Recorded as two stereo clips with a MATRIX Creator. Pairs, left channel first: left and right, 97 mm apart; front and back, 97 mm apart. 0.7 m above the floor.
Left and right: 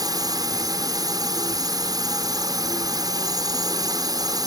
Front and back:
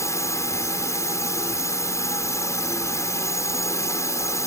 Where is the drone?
55° right.